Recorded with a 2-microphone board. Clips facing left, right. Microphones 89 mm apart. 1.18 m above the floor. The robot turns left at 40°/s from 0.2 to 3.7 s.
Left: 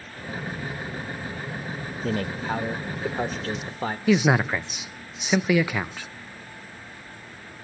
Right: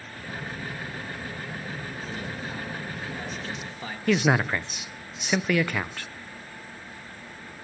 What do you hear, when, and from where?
2.0 s a man speaking: 110° left, 1.2 m; by 4.0 s 45° left, 1.2 m
4.1 s a man speaking: 5° left (ahead or behind), 0.6 m